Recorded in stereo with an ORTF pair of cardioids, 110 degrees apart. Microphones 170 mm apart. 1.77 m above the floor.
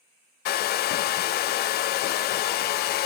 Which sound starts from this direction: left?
A hair dryer, at 0.5 s.